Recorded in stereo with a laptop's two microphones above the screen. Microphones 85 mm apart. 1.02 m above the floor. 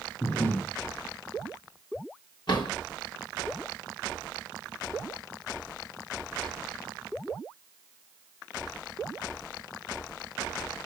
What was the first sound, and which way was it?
Breathing, 20° left (ahead or behind).